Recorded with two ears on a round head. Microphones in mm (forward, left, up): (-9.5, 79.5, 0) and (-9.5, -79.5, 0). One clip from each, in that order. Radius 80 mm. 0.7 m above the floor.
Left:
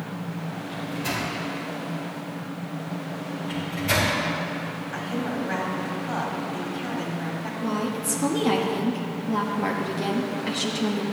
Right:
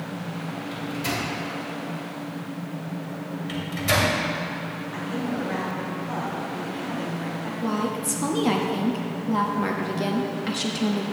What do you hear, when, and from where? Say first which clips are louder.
0.7 s a microwave: even; 45° right (ahead or behind), 2.5 m
3.5 s a microwave: right 1 dB; 35° right (ahead or behind), 2 m
4.9 s a woman speaking: even; 25° left (ahead or behind), 2.0 m
7.6 s a woman speaking: right 1 dB; 5° right (ahead or behind), 1.0 m